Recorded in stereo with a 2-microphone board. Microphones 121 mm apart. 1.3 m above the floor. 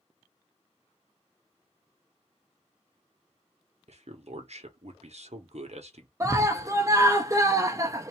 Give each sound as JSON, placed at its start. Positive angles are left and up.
{"t": 3.9, "sound": "a man speaking", "side_deg": -65, "distance_m": 1.1}
{"t": 6.2, "sound": "a scream", "side_deg": -25, "distance_m": 0.5}